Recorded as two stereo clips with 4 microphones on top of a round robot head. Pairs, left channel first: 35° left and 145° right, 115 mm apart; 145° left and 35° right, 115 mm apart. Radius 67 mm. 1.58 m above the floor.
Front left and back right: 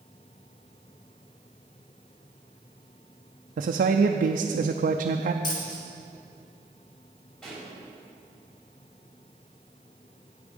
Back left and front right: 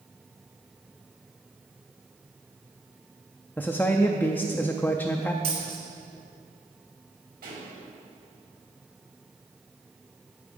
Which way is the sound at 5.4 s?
5° right.